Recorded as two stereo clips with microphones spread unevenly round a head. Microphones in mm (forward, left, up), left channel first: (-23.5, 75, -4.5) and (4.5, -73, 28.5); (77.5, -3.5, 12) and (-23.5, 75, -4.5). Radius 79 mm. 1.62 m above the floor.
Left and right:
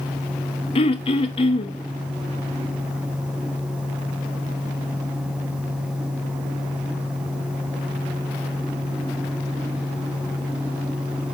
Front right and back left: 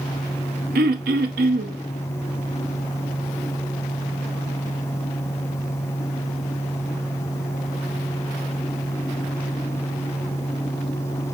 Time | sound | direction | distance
0.8 | throat clearing | 155° left | 0.6 m